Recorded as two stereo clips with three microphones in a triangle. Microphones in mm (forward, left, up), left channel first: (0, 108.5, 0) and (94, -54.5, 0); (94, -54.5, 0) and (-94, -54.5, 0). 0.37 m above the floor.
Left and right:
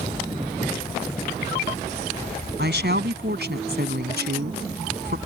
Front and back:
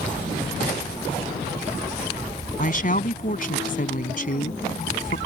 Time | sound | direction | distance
2.6 | a woman speaking | 40° right | ?